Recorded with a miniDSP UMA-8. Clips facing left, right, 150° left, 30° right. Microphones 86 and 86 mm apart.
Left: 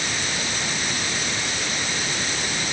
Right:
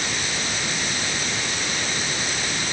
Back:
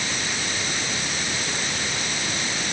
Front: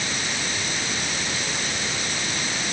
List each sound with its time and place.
Only background noise.